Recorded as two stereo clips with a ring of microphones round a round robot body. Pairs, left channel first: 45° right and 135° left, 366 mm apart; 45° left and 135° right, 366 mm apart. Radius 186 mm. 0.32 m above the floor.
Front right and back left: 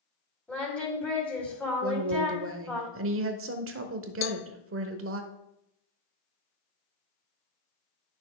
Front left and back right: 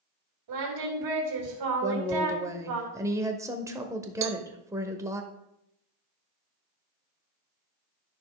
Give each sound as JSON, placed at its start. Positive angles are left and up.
{"t": 0.5, "sound": "singing", "azimuth_deg": -130, "distance_m": 2.5}
{"t": 1.8, "sound": "a woman speaking", "azimuth_deg": 150, "distance_m": 1.0}
{"t": 4.2, "sound": "a cowbell", "azimuth_deg": -90, "distance_m": 0.6}